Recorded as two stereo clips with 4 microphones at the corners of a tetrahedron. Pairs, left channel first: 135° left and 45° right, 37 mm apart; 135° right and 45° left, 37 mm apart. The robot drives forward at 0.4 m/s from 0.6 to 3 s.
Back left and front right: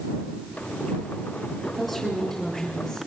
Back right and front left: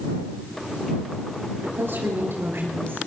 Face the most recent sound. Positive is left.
turn(degrees=55)